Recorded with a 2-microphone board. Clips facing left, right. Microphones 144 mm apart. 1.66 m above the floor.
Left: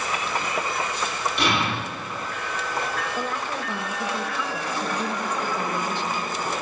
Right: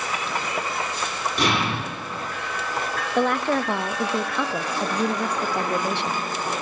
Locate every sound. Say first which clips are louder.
1.4 s an explosion: right 2 dB; 45° right (ahead or behind), 6 m
3.1 s a woman speaking: right 8 dB; 70° right (ahead or behind), 0.6 m